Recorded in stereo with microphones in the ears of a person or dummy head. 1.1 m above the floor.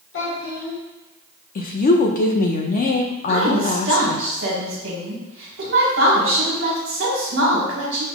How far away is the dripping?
I don't hear dripping.